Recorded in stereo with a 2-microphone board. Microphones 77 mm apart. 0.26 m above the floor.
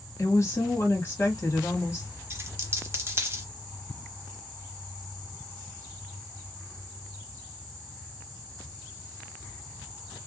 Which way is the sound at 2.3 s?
35° right (ahead or behind).